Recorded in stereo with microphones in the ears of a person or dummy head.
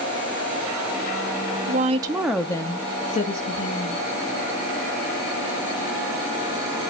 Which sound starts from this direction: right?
A woman speaking, at 1.7 s.